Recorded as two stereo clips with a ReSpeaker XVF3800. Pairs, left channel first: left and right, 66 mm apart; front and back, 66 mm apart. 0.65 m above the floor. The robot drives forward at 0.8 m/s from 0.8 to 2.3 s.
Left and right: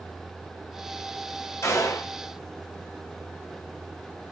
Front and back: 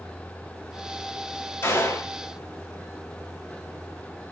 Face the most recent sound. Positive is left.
turn(degrees=50)